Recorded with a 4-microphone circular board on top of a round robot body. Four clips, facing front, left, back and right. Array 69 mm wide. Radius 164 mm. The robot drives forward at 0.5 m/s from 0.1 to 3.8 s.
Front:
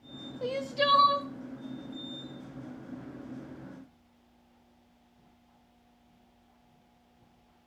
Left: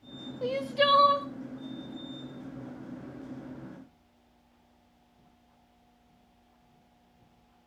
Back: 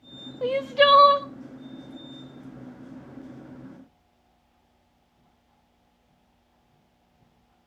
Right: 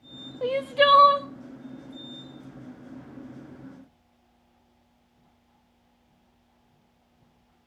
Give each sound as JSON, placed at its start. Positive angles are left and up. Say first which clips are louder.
{"t": 0.4, "sound": "crying", "louder": "right 5 dB, back 9 dB", "azimuth_deg": -135, "distance_m": 0.8}